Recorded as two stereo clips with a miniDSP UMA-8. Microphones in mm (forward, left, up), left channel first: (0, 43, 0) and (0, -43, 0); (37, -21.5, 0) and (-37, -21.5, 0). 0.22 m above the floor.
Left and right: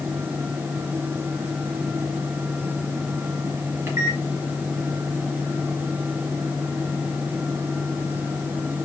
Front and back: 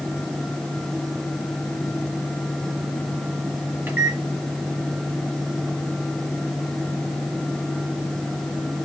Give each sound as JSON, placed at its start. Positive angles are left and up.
{"t": 3.9, "sound": "a microwave", "azimuth_deg": -130, "distance_m": 1.0}